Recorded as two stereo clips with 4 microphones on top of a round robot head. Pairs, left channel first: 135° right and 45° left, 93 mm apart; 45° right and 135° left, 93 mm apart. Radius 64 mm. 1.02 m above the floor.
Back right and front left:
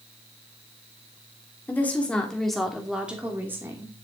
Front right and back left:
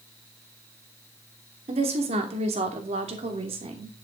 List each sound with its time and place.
1.7 s a woman speaking: 155° left, 2.5 m; by 4.0 s 105° left, 2.5 m